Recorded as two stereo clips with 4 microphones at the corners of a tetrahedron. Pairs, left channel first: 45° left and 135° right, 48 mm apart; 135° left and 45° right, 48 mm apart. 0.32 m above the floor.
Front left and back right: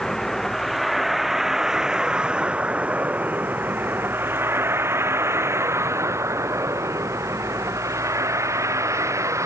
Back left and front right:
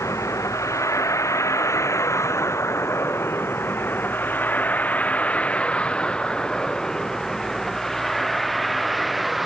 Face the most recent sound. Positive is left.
turn(degrees=-135)